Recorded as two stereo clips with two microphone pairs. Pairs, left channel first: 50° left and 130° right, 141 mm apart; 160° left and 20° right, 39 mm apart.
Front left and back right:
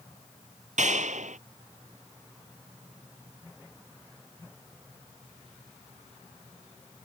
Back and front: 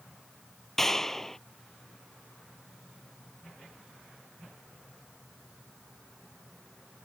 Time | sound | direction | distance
0.8 | a clap | 115° right | ?